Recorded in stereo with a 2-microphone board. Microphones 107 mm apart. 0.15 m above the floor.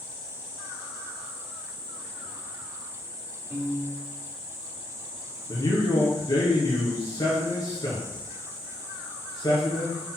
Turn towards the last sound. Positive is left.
turn(degrees=40)  # may be behind; listen again after turning